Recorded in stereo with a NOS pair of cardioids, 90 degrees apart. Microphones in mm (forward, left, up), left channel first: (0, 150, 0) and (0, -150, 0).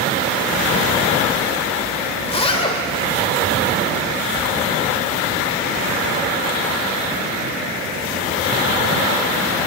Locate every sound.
2.2 s a zipper: 20° left, 1.8 m